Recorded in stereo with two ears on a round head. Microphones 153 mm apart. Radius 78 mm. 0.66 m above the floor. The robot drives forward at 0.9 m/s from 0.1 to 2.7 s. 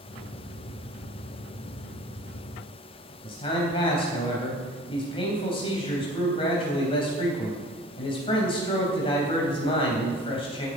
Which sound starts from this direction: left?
A man speaking, at 3.2 s.